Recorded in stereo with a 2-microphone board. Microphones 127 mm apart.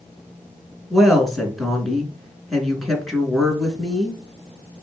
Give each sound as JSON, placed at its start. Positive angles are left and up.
{"t": 0.9, "sound": "a woman speaking", "side_deg": 0, "distance_m": 3.0}